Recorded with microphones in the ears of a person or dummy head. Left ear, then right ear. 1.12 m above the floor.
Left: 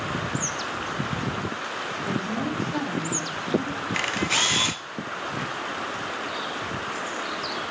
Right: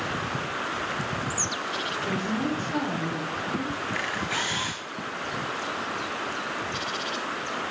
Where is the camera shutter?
20° left (ahead or behind), 0.6 m.